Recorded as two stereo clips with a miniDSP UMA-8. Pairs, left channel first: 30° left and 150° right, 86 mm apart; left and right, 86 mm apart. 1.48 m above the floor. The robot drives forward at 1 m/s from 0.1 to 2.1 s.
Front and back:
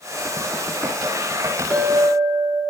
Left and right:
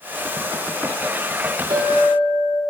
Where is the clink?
95° right, 2.5 m; by 2.6 s 105° right, 2.5 m.